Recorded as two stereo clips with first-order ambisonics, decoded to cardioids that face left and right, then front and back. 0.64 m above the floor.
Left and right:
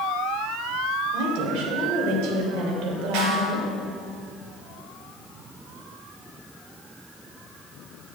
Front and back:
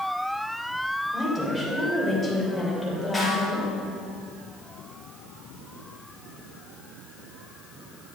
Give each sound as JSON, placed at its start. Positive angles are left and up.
{"t": 1.1, "sound": "a woman speaking", "azimuth_deg": -100, "distance_m": 3.0}
{"t": 3.1, "sound": "a snare drum", "azimuth_deg": -85, "distance_m": 3.0}